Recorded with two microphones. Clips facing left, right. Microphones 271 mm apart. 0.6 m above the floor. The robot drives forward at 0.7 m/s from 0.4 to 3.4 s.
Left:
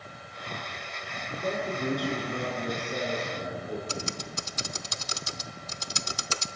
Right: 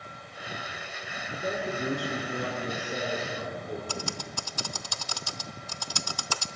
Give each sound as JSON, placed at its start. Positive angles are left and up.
{"t": 1.3, "sound": "a man speaking", "side_deg": -5, "distance_m": 8.0}
{"t": 3.9, "sound": "typing on a keyboard", "side_deg": 25, "distance_m": 0.7}